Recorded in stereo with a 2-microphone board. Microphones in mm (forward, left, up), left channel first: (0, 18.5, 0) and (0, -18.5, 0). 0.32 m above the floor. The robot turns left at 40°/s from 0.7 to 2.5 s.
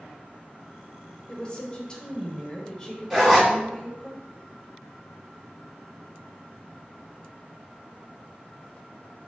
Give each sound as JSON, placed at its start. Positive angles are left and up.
{"t": 1.3, "sound": "a woman speaking", "side_deg": 30, "distance_m": 0.9}
{"t": 3.1, "sound": "a zipper", "side_deg": -5, "distance_m": 1.9}